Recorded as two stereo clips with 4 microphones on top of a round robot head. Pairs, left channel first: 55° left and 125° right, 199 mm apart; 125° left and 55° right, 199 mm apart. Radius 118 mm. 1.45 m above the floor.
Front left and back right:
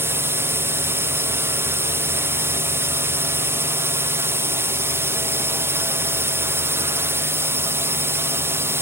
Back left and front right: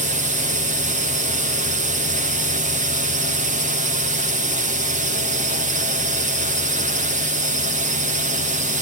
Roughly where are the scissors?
No scissors in this recording.